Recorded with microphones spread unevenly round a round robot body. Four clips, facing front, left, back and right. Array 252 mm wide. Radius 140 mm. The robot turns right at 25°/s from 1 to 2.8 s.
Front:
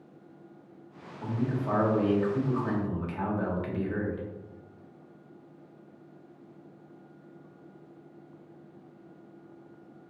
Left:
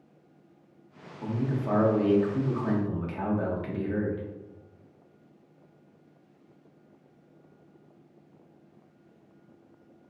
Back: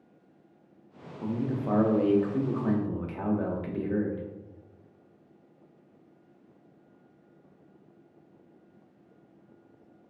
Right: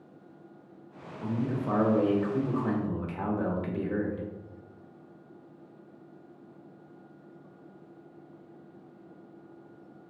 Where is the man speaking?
Straight behind, 0.8 m; by 4.3 s 140° right, 0.8 m.